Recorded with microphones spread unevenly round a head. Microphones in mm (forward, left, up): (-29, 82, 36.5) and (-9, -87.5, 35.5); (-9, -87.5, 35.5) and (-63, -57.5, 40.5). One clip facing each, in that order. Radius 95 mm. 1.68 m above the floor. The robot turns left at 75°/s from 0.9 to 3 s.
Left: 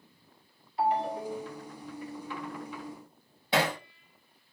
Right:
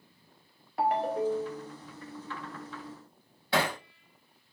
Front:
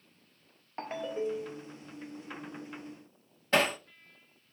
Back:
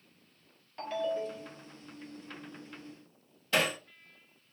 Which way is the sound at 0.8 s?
75° right.